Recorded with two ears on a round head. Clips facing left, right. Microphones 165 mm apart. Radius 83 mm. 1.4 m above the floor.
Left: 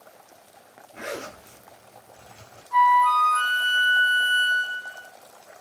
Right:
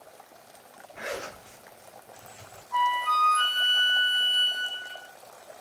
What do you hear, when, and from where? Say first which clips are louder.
0.9 s a zipper: left 2 dB; 45° left (ahead or behind), 0.8 m
2.7 s a flute: left 8 dB; 55° left (ahead or behind), 1.0 m